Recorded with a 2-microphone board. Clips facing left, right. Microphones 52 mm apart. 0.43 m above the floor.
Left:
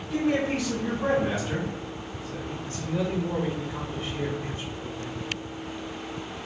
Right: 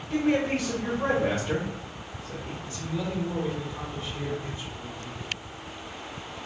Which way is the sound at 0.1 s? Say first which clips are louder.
Right 1 dB; 70° right (ahead or behind).